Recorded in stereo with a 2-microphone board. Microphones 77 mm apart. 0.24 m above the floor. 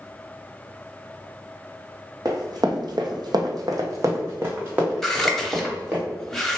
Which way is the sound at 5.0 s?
5° left (ahead or behind).